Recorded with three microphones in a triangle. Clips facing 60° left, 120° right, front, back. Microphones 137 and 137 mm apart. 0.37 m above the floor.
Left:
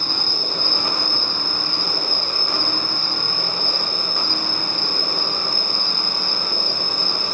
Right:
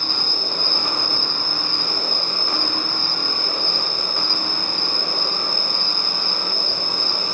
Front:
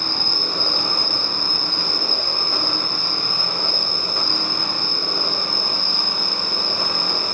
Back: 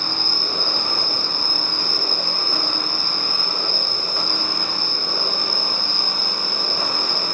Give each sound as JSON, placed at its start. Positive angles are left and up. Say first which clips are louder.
{"t": 0.0, "sound": "an insect", "louder": "even, front 1 dB", "azimuth_deg": -105, "distance_m": 1.7}